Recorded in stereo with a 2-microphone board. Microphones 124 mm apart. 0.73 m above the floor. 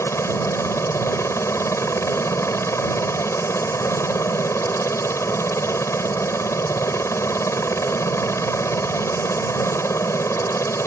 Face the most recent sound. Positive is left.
turn(degrees=25)  # may be behind; listen again after turning